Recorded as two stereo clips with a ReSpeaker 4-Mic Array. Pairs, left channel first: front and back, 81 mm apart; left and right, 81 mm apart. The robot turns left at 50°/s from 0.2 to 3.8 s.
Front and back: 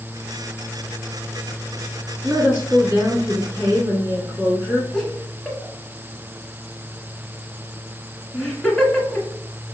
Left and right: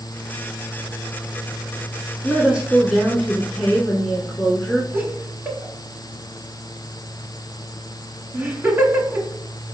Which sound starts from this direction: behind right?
A woman speaking, at 2.2 s.